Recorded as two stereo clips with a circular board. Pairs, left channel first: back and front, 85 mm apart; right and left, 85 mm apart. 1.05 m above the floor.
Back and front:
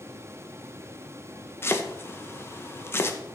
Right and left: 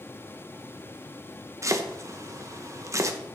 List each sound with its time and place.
1.6 s chopping: 130° left, 1.0 m